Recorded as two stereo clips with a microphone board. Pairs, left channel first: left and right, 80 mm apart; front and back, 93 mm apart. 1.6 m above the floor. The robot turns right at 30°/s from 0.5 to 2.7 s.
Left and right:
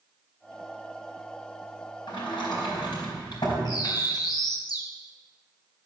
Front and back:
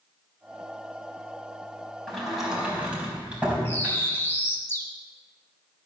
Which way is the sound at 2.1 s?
85° left.